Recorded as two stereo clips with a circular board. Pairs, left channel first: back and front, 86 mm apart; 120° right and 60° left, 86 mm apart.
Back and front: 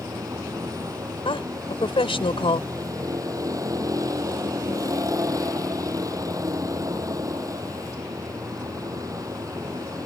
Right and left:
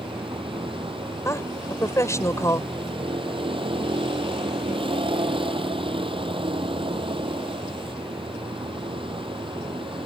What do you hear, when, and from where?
0.0 s a vehicle: 50° left
1.2 s a woman speaking: 175° right